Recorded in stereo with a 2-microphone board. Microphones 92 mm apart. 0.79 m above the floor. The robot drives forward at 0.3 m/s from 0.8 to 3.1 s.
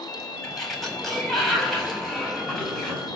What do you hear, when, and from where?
0.4 s a sliding door: 5° left (ahead or behind), 5 m